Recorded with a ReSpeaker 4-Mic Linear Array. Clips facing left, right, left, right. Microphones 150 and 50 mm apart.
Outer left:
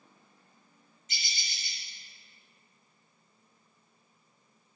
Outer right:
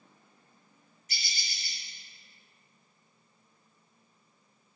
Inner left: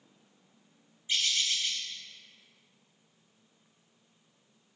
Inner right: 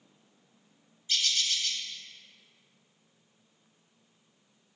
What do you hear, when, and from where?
1.1 s a bird: 20° left (ahead or behind), 1.2 m